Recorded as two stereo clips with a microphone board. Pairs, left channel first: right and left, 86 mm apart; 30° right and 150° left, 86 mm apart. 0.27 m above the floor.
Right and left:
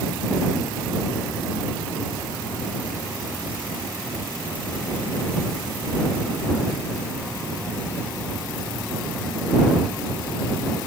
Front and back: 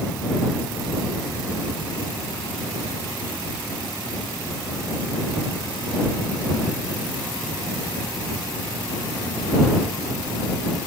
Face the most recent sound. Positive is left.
No sound to turn to.